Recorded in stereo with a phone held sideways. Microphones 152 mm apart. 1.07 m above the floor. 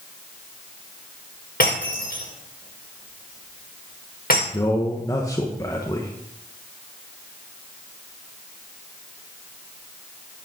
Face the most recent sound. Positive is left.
turn(degrees=20)  # may be behind; listen again after turning